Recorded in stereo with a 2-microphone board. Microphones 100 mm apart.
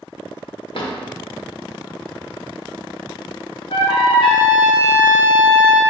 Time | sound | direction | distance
0.7 | a drawer | 60° left (ahead or behind) | 0.8 m
3.7 | a trumpet | 60° left (ahead or behind) | 1.1 m